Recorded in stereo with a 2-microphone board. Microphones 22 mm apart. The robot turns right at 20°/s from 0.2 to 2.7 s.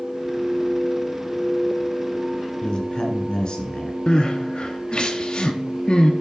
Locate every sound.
2.6 s a man speaking: 35° left (ahead or behind), 1.5 m; by 4.0 s 40° left (ahead or behind), 1.5 m
4.1 s crying: 35° left (ahead or behind), 0.8 m